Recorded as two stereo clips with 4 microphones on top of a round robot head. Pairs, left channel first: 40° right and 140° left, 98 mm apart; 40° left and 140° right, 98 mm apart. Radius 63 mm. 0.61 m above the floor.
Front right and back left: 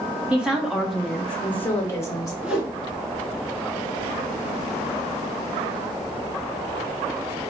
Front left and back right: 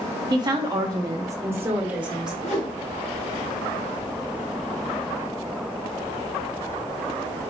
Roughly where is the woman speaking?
Behind right.